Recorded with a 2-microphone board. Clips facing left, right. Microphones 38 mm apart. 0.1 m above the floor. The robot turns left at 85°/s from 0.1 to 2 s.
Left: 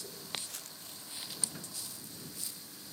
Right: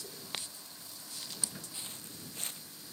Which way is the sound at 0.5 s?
85° left.